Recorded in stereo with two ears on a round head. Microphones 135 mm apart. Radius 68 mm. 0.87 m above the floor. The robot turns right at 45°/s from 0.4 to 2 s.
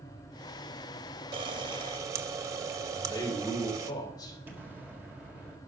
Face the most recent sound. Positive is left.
turn(degrees=-10)  # may be behind; listen again after turning